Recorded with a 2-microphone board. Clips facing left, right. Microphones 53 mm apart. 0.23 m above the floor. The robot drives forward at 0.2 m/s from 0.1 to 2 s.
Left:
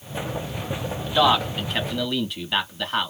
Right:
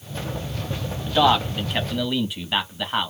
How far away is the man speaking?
About 1.3 m.